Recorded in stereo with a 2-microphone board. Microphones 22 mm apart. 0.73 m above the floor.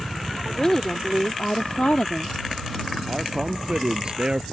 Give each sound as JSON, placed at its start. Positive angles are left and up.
{"t": 0.5, "sound": "a woman speaking", "side_deg": 25}
{"t": 3.1, "sound": "a man speaking", "side_deg": -35}